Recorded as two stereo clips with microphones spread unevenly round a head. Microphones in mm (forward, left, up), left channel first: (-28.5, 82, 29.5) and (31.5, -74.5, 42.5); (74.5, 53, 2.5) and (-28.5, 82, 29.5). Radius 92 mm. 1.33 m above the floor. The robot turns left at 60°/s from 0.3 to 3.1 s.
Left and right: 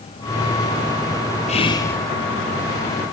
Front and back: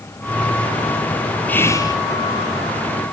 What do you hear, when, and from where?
1.5 s whispering: 60° left, 2.5 m; by 2.0 s 30° left, 2.5 m